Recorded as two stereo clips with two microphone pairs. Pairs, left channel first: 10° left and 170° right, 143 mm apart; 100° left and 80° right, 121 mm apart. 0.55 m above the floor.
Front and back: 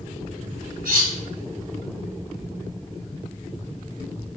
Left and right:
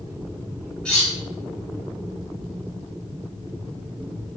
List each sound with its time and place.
0.8 s cutlery clinking: 175° right, 3 m